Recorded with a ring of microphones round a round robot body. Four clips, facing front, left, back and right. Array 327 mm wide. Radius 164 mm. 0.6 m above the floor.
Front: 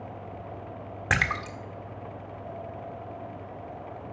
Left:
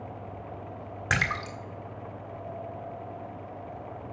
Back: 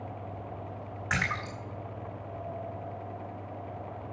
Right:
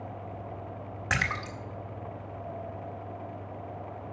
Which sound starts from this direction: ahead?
A splash, at 1.1 s.